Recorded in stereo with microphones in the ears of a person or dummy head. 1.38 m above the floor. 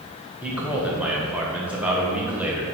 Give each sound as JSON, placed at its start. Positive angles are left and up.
{"t": 0.4, "sound": "a man speaking", "side_deg": 0, "distance_m": 1.5}